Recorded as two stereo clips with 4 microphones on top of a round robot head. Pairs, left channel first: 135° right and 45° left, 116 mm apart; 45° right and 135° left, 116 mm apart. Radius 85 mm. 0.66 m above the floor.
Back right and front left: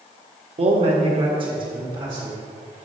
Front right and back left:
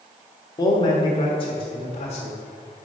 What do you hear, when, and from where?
0.6 s a man speaking: 10° left, 1.4 m; by 2.4 s 10° right, 2.5 m